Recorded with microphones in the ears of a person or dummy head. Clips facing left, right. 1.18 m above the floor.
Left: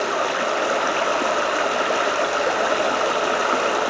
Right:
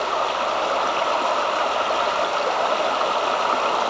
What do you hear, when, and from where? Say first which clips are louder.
0.0 s running water: left 1 dB; 20° left (ahead or behind), 1.4 m